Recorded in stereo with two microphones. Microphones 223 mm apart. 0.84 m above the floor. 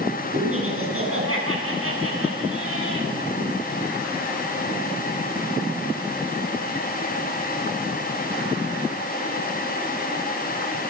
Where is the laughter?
75° right (ahead or behind), 8 m.